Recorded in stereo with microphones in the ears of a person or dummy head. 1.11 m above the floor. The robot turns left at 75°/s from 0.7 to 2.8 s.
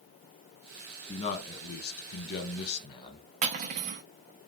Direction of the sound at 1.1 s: 155° left.